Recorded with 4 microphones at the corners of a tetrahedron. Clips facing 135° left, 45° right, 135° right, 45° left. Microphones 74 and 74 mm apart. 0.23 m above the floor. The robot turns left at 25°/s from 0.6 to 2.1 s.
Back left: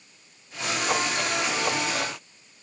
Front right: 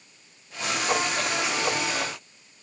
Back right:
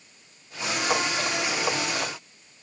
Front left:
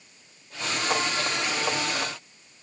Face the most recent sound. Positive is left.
No sound to turn to.